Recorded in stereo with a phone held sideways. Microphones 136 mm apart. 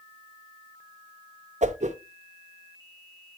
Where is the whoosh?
60° right (ahead or behind), 0.6 m.